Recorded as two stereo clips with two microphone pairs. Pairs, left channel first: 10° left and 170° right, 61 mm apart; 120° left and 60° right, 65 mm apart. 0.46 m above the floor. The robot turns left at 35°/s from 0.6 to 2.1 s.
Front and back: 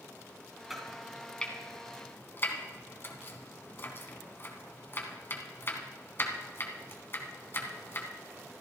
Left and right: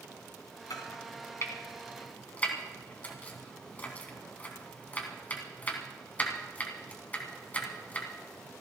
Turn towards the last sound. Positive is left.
turn(degrees=60)